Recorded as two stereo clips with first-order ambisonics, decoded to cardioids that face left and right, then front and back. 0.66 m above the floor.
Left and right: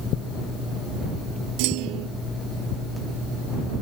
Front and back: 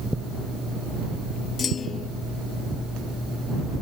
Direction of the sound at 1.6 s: 65° right.